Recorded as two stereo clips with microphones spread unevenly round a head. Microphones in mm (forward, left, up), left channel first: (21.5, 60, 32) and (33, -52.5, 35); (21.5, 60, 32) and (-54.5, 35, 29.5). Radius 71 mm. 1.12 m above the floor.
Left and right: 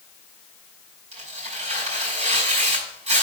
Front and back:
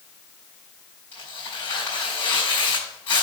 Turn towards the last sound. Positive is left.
turn(degrees=-60)